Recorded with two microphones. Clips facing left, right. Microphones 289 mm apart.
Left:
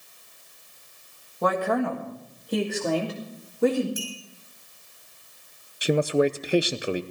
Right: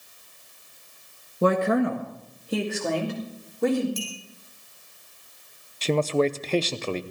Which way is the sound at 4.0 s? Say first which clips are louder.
Right 1 dB; 10° left (ahead or behind).